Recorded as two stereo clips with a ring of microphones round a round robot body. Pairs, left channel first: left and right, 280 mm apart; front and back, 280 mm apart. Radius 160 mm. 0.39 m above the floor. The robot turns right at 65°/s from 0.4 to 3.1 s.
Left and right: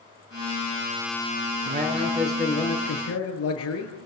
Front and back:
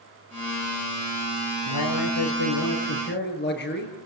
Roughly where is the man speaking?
Ahead right.